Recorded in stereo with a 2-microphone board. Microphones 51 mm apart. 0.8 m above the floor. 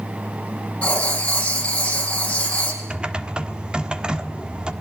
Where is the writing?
25° left (ahead or behind), 5 m.